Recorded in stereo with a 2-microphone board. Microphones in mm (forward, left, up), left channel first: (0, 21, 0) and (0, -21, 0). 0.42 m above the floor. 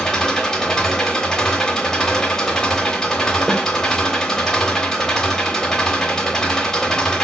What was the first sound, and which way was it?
An engine running, 15° left (ahead or behind).